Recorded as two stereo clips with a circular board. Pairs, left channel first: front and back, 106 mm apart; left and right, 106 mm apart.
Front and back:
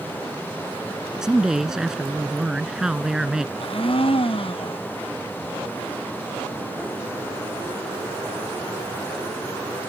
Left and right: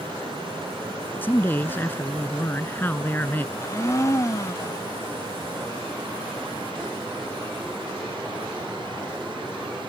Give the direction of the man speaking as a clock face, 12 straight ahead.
8 o'clock.